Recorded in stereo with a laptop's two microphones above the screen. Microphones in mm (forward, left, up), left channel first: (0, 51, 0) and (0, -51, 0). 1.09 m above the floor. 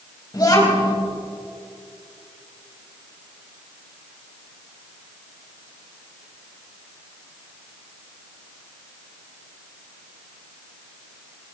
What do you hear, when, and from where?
0.3 s a child speaking: 35° left (ahead or behind), 4.5 m